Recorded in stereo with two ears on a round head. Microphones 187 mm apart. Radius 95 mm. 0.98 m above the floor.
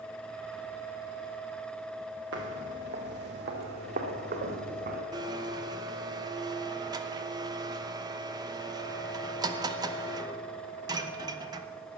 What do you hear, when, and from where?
2.3 s footsteps: 65° right (ahead or behind), 2 m; by 5.0 s 50° right (ahead or behind), 3.5 m
5.1 s a blender: 20° right (ahead or behind), 0.8 m